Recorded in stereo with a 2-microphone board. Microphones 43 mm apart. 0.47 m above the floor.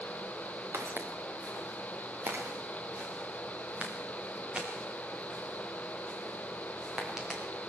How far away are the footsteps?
About 3.5 m.